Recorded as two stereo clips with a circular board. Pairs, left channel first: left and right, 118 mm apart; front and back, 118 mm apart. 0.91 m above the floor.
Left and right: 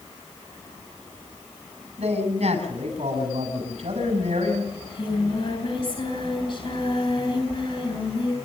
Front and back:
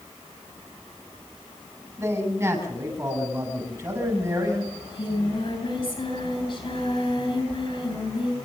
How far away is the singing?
About 6.5 m.